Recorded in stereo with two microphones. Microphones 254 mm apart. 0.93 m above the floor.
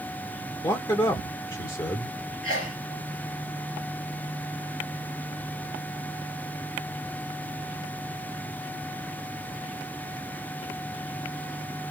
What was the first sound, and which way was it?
A man speaking, 15° left (ahead or behind).